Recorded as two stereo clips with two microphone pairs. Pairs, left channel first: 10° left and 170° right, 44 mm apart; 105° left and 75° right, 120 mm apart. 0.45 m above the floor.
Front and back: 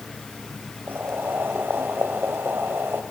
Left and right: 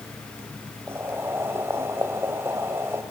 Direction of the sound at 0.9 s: 145° right.